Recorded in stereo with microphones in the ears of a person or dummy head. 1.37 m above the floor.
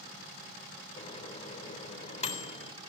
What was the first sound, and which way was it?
A microwave, 35° left (ahead or behind).